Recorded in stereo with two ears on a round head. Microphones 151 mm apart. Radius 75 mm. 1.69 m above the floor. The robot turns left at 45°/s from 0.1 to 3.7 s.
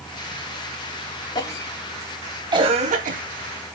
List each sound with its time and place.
1.4 s a cough: 25° left (ahead or behind), 2.5 m; by 3.2 s 55° right (ahead or behind), 2.5 m